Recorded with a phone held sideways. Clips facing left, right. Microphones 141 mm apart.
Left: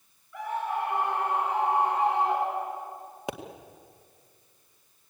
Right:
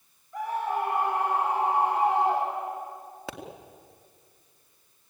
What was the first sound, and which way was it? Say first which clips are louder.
A scream: right 2 dB; 40° right (ahead or behind).